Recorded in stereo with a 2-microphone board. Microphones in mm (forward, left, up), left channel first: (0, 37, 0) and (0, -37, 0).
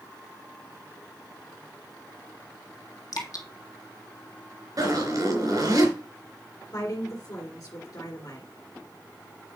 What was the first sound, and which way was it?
Dripping, 55° left (ahead or behind).